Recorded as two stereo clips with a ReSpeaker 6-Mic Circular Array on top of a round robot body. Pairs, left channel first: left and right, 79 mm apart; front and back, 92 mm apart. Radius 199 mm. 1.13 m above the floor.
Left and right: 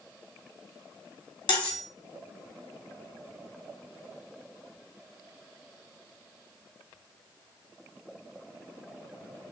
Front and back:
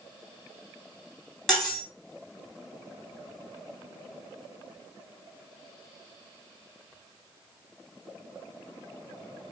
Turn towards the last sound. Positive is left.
turn(degrees=85)